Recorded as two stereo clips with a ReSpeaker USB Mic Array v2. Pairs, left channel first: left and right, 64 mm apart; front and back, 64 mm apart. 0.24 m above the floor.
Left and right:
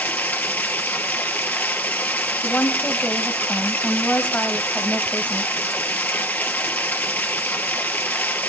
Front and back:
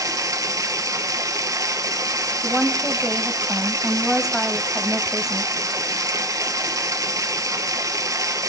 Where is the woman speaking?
110° left, 1.2 m.